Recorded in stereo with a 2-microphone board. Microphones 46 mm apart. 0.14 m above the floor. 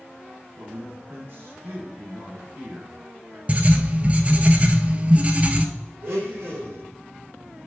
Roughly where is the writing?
Right.